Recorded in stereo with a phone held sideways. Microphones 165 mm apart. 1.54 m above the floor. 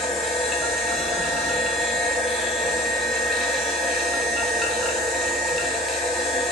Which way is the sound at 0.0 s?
Centre (ahead or behind).